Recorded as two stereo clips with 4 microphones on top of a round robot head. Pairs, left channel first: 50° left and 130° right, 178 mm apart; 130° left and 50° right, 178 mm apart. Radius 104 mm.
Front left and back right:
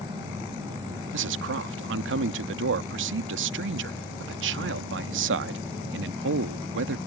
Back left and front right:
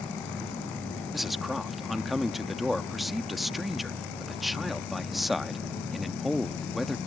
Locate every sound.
1.1 s a man speaking: 135° right